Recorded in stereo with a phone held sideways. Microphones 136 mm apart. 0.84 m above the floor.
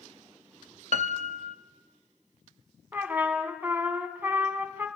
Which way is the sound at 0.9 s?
60° right (ahead or behind).